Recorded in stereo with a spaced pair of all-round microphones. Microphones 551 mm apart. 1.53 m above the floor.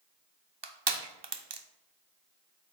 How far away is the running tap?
I don't hear a running tap.